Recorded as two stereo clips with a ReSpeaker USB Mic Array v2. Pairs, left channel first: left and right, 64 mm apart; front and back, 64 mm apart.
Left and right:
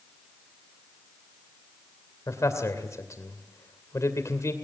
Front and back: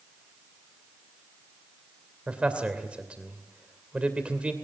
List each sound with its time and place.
2.3 s a man speaking: 110° left, 2.5 m